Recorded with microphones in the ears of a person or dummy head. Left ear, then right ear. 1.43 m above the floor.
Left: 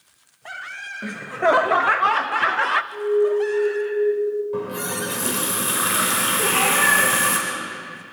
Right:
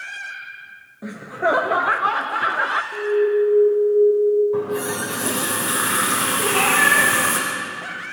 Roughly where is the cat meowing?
Centre.